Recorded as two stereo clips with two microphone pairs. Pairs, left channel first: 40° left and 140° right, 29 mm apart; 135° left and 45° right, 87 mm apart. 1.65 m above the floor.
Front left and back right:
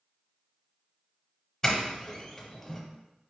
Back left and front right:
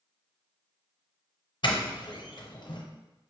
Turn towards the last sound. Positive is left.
turn(degrees=110)